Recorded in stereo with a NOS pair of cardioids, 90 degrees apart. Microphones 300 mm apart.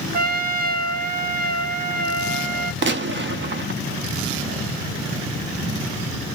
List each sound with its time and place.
0.1 s a trumpet: 30° right, 0.6 m
2.8 s a gunshot: 40° right, 0.6 m